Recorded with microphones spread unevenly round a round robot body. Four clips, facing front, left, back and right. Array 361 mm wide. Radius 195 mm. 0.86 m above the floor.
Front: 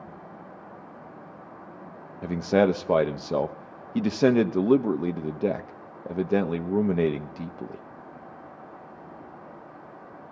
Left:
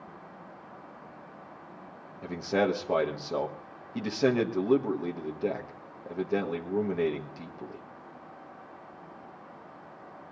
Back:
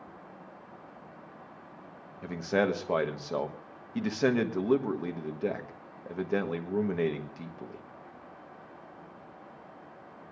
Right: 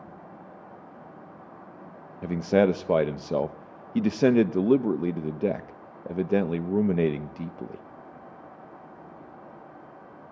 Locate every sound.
2.2 s a man speaking: 50° right, 1.3 m